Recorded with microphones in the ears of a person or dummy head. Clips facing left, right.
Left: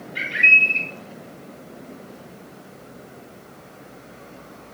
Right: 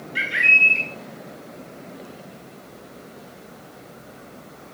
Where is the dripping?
I don't hear dripping.